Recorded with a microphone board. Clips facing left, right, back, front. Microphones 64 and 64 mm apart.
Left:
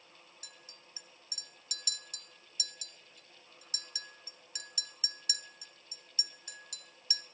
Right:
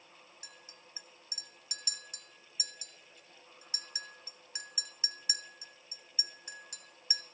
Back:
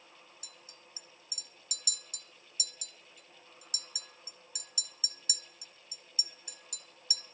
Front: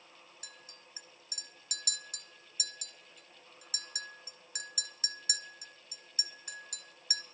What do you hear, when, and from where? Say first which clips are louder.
0.4 s a clink: right 2 dB, front 2 dB; 30° right, 1.0 m